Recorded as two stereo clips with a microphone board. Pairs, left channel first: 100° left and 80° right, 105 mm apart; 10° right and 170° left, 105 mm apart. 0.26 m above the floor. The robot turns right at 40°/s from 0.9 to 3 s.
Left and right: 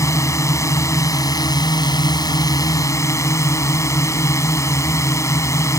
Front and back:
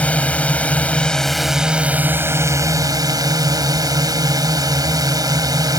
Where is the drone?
60° left; by 5.8 s 145° left.